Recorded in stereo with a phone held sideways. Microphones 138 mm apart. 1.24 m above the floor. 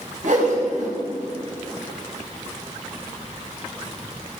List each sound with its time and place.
0.2 s a whoosh: 65° right (ahead or behind), 4 m